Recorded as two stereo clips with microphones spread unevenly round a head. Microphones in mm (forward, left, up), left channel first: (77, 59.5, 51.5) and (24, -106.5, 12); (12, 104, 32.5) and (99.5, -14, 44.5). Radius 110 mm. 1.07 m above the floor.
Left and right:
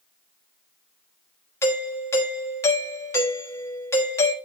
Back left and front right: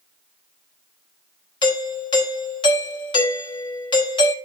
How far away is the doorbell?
About 1.2 m.